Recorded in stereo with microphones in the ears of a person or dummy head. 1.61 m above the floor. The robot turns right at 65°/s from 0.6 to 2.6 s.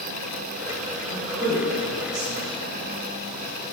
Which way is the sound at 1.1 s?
5° right (ahead or behind).